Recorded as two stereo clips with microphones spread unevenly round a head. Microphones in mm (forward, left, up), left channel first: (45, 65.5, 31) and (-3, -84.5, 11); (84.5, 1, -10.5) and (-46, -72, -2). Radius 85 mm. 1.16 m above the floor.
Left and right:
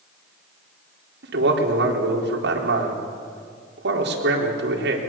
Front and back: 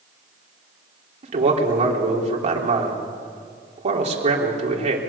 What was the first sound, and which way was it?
A man speaking, 105° right.